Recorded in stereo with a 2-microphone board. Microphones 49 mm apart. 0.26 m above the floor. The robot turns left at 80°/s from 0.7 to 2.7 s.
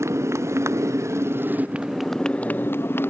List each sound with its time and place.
0.0 s a motorcycle: 75° right (ahead or behind); by 3.1 s 50° left (ahead or behind)